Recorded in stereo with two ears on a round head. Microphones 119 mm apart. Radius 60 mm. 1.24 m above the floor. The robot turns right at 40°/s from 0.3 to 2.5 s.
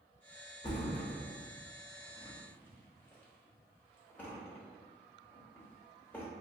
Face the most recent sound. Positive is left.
turn(degrees=15)  # may be behind; listen again after turning